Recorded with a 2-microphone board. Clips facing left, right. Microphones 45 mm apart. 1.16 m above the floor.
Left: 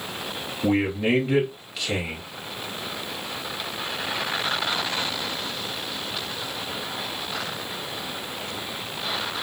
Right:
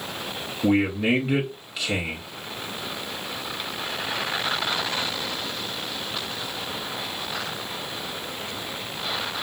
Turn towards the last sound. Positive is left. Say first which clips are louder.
# right 1 dB
turn(degrees=-5)  # may be behind; listen again after turning